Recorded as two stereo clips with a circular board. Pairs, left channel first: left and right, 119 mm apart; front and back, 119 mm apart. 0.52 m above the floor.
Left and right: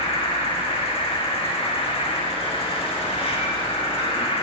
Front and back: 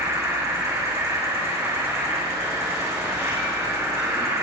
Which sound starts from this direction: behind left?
An insect, at 0.0 s.